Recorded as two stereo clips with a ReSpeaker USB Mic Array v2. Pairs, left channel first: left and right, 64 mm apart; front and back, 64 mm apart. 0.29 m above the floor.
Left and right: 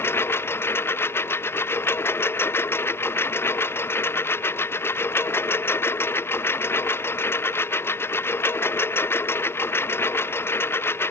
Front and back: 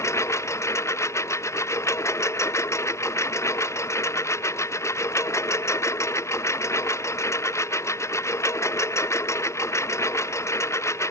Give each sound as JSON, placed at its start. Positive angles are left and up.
{"t": 0.0, "sound": "a lawn mower", "azimuth_deg": 40}